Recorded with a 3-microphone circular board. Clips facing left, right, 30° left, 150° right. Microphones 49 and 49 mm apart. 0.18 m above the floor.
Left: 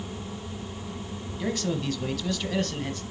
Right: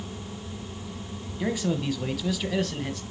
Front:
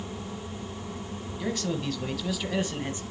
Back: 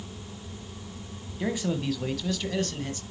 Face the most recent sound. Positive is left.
turn(degrees=0)